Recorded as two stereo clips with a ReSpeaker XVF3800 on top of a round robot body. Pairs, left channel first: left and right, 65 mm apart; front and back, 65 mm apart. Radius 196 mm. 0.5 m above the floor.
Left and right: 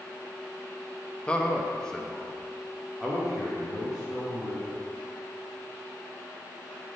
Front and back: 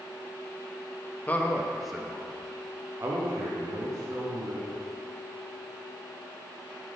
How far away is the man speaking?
About 1.0 m.